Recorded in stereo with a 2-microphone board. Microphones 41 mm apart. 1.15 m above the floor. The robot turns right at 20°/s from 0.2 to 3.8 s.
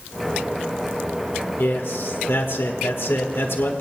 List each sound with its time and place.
1.6 s a man speaking: 70° left, 1.6 m; by 3.8 s 115° left, 1.6 m